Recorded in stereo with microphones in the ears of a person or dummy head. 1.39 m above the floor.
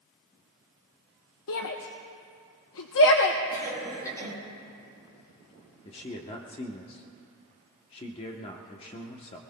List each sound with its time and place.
1.5 s a shout: 70° left (ahead or behind), 0.9 m
3.5 s a cough: 15° left (ahead or behind), 6.5 m
5.8 s a man speaking: 25° left (ahead or behind), 0.9 m